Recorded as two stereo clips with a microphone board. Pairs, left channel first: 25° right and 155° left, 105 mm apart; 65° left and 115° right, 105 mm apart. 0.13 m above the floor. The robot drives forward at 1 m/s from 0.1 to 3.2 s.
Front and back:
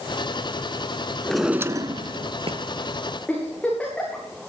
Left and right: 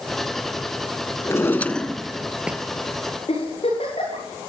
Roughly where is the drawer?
Ahead left.